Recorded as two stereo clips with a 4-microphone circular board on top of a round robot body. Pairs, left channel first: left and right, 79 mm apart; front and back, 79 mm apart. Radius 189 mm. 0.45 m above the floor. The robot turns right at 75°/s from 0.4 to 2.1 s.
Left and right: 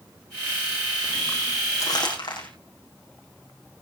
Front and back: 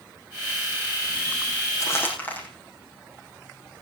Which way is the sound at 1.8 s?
45° left.